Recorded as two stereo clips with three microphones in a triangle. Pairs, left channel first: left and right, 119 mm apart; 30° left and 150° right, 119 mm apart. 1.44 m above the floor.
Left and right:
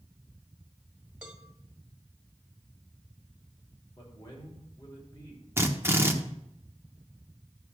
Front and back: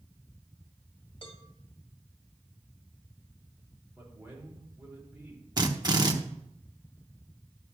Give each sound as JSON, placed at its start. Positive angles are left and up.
{"t": 1.2, "sound": "a cowbell", "azimuth_deg": -10, "distance_m": 1.6}
{"t": 4.0, "sound": "a man speaking", "azimuth_deg": 140, "distance_m": 4.5}
{"t": 5.6, "sound": "a drill", "azimuth_deg": -145, "distance_m": 1.1}